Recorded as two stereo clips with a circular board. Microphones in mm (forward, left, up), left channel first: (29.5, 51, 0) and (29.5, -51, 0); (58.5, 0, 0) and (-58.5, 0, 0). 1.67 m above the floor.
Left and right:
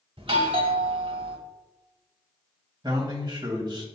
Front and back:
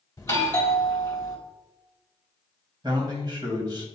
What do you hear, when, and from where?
0.2 s a doorbell: 65° right, 1.0 m
2.8 s a man speaking: 135° right, 1.0 m